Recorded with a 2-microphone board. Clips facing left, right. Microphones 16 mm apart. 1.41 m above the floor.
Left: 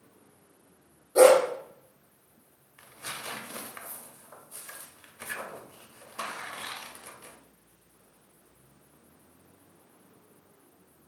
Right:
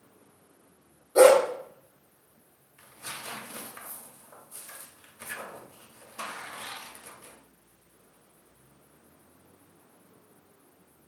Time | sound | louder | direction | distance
1.1 | a dog barking | right 1 dB | 10° right (ahead or behind) | 0.8 m
2.8 | tearing paper | left 1 dB | 15° left (ahead or behind) | 0.5 m